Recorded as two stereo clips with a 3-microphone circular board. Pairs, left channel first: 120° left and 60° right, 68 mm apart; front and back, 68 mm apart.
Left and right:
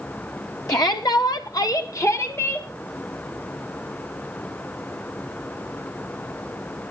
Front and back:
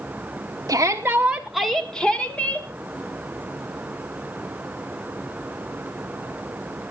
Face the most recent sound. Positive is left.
turn(degrees=65)